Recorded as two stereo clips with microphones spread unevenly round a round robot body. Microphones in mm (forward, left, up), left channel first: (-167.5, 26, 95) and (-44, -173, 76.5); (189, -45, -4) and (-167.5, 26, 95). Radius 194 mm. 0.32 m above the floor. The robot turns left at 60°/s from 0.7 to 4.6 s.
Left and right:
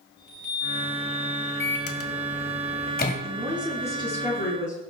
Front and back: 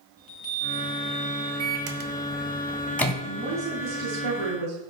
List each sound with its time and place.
0.2 s a chime: 70° left, 4 m; by 1.5 s 25° left, 4 m
1.6 s a microwave: 150° left, 1.9 m; by 3.1 s 60° left, 1.9 m
3.2 s a woman speaking: 120° right, 6 m; by 4.8 s 155° left, 6 m